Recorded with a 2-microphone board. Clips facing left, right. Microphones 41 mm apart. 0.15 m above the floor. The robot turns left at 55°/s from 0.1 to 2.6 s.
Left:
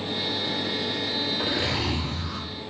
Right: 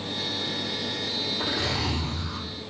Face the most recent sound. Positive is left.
turn(degrees=95)